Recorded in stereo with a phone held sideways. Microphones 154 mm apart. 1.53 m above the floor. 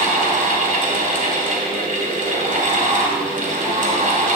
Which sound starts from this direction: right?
A fan, at 0.0 s.